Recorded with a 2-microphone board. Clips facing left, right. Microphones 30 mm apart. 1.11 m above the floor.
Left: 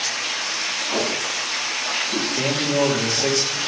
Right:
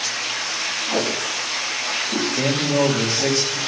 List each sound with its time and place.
0.9 s tape being pulled: 55° right (ahead or behind), 4.5 m
2.4 s a man speaking: 20° right (ahead or behind), 1.7 m